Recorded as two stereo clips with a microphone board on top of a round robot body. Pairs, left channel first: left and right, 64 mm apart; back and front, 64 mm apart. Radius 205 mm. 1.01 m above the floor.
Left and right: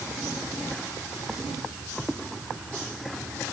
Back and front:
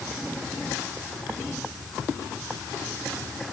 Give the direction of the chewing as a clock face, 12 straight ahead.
I don't hear chewing.